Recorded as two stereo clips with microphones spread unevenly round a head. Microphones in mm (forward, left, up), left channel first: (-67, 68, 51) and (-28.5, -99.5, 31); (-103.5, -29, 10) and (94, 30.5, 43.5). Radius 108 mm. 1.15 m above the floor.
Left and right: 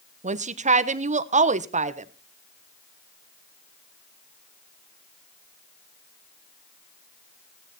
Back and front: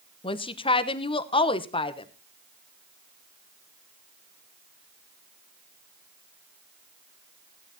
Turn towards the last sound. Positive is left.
turn(degrees=-110)